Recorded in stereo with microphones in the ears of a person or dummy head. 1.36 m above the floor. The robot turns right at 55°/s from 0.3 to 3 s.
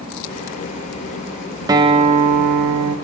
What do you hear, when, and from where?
1.7 s a guitar: 160° right, 0.8 m; by 3.0 s 90° right, 0.8 m